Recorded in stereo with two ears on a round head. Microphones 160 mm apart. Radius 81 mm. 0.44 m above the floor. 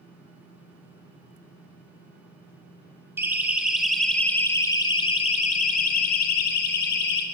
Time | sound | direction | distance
3.2 | a siren | 15° right (ahead or behind) | 2 m